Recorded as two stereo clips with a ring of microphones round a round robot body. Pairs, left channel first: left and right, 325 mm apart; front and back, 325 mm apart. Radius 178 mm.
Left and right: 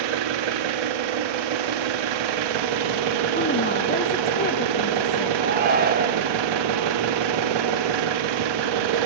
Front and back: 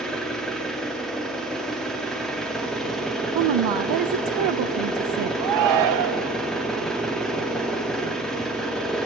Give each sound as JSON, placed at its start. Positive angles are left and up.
{"t": 0.0, "sound": "an engine running", "azimuth_deg": -90, "distance_m": 0.8}
{"t": 3.4, "sound": "a woman speaking", "azimuth_deg": 155, "distance_m": 0.6}
{"t": 5.4, "sound": "a shout", "azimuth_deg": -150, "distance_m": 1.1}